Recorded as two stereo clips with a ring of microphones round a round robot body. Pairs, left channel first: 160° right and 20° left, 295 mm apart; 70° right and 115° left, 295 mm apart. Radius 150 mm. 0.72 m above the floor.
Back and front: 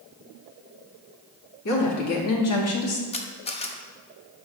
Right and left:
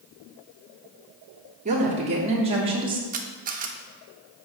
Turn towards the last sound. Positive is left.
turn(degrees=150)